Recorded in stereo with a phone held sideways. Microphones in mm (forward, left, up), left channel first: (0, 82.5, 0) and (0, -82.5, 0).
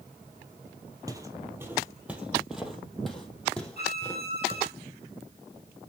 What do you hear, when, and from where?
1.1 s footsteps: 20° right (ahead or behind), 2 m; by 4.6 s 10° left (ahead or behind), 3.5 m
3.8 s a violin: 70° right (ahead or behind), 5.5 m